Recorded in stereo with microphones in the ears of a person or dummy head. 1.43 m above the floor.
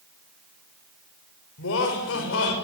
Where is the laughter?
75° left (ahead or behind), 6.5 m.